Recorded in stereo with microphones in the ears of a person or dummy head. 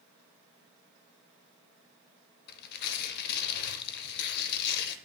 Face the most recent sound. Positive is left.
turn(degrees=55)  # may be behind; listen again after turning